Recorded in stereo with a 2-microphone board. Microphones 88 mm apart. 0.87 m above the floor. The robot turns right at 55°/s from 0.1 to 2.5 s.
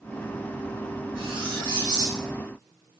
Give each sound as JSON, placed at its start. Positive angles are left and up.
{"t": 1.1, "sound": "cutlery clinking", "azimuth_deg": -90, "distance_m": 0.8}